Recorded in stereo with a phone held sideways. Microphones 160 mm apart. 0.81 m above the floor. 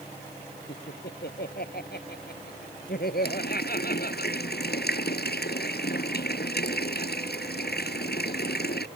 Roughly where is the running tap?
Left.